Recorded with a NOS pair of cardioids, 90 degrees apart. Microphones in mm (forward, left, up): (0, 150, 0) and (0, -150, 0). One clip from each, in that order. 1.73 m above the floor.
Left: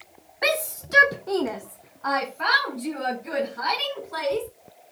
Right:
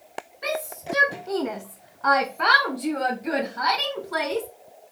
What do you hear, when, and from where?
0.4 s a shout: 60° left, 0.9 m; by 4.5 s 55° right, 3 m